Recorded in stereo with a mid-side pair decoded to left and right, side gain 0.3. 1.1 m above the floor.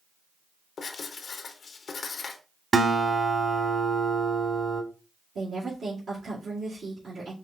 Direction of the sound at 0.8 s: 70° left.